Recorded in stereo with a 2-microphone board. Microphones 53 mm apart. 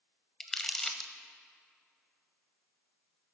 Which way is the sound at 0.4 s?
10° left (ahead or behind).